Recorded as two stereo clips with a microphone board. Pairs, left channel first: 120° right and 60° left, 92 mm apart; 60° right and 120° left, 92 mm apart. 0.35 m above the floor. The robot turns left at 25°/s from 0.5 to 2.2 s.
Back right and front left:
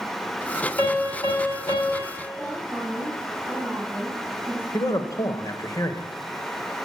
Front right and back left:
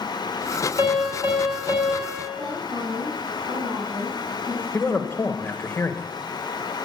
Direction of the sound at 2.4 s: 125° left.